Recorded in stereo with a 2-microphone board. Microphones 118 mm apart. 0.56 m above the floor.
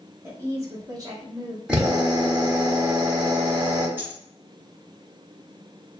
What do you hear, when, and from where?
0.2 s a woman speaking: 20° right (ahead or behind), 1.0 m; by 1.6 s 30° right (ahead or behind), 1.2 m
1.7 s a drill: 10° right (ahead or behind), 1.1 m
4.0 s a dropped coin: 20° right (ahead or behind), 0.9 m